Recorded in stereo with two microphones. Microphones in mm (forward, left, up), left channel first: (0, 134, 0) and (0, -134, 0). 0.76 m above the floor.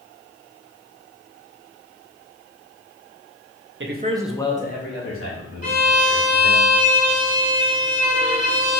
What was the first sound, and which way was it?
A man speaking, 50° right (ahead or behind).